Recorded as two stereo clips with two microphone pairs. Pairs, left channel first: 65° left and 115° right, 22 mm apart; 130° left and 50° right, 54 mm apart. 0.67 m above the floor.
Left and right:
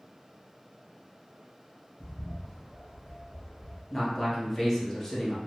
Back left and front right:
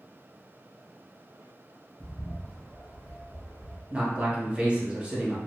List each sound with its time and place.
2.0 s a bird: 75° left, 1.9 m
3.9 s a man speaking: 5° left, 1.0 m